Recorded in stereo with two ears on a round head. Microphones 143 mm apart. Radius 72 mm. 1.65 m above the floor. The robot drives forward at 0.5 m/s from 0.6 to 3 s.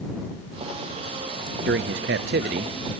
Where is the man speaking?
70° right (ahead or behind), 0.6 m; by 2.8 s 55° right (ahead or behind), 0.7 m.